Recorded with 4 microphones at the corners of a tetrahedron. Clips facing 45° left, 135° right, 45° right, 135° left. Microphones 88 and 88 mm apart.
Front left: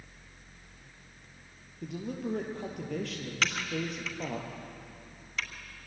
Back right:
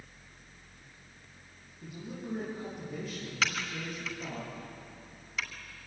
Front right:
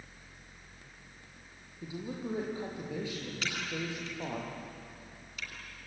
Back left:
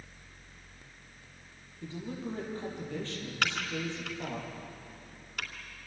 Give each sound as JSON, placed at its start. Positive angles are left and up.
{"t": 1.8, "sound": "a man speaking", "azimuth_deg": 35, "distance_m": 7.5}
{"t": 3.4, "sound": "typing on a keyboard", "azimuth_deg": 140, "distance_m": 3.0}